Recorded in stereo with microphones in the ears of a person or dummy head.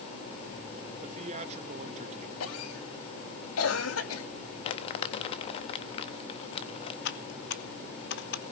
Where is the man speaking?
30° right (ahead or behind), 1.9 m.